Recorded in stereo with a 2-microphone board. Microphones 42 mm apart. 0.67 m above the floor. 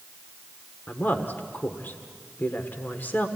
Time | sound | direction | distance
0.9 | a woman speaking | 50° left (ahead or behind) | 1.5 m